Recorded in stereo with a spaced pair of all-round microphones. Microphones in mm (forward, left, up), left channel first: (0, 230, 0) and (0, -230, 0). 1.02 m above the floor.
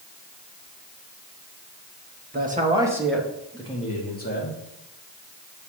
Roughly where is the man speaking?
Right.